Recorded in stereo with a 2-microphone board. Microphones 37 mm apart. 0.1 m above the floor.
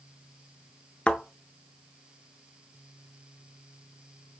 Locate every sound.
1.1 s a thud: 30° left (ahead or behind), 0.6 m